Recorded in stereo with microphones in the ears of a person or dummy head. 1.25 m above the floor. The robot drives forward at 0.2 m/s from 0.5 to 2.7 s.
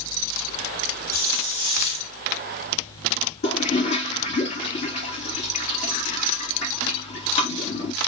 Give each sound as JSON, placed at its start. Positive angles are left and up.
{"t": 1.1, "sound": "a hiss", "side_deg": -10, "distance_m": 1.1}
{"t": 3.4, "sound": "a toilet flushing", "side_deg": 35, "distance_m": 1.1}